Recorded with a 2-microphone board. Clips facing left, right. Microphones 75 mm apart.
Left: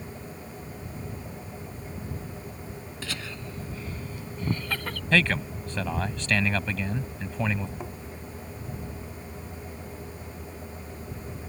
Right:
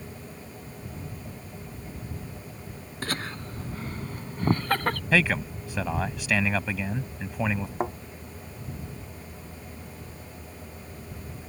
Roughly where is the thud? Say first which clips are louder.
Right 9 dB; right.